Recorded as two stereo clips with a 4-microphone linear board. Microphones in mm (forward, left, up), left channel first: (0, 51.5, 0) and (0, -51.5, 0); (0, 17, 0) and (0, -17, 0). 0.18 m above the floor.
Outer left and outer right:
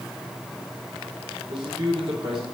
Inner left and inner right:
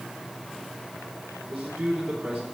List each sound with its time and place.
1.5 s a man speaking: 55° right (ahead or behind), 4.5 m